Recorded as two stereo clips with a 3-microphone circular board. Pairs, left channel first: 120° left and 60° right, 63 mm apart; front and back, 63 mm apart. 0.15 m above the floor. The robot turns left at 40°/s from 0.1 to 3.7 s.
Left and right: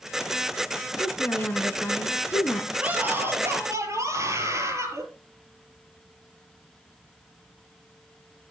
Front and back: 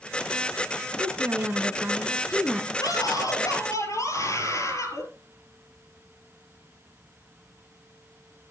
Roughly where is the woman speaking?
Behind.